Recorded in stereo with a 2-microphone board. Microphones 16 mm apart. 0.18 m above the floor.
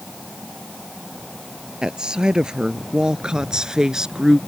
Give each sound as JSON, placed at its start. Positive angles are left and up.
{"t": 1.8, "sound": "a woman speaking", "side_deg": -70}